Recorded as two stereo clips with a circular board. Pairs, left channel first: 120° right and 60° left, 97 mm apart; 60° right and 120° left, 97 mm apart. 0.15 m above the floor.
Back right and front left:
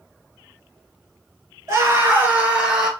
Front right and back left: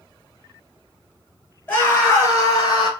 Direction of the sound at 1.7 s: 5° left.